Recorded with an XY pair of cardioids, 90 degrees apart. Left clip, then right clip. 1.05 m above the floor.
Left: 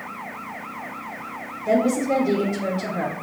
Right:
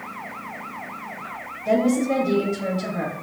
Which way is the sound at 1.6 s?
5° right.